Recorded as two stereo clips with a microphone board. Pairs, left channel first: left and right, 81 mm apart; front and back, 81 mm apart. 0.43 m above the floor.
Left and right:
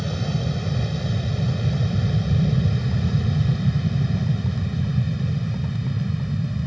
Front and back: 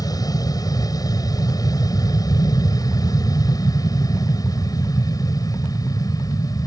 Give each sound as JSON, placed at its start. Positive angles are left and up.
{"t": 0.0, "sound": "an aircraft", "azimuth_deg": 5}